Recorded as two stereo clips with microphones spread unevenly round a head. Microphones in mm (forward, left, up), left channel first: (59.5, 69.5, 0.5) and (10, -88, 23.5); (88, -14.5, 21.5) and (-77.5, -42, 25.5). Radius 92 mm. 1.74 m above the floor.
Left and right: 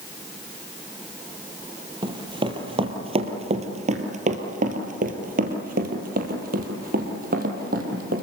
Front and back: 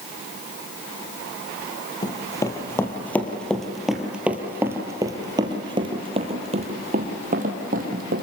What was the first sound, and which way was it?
Running footsteps, 55° right.